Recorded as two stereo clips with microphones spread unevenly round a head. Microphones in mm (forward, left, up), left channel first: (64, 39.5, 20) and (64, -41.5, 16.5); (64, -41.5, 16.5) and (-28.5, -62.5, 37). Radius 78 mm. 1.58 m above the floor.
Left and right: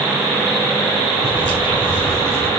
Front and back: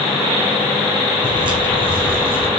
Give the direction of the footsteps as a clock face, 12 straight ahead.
5 o'clock.